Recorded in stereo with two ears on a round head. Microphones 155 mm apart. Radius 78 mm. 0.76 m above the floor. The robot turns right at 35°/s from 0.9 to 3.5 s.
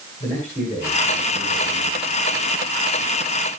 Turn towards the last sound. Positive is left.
turn(degrees=-120)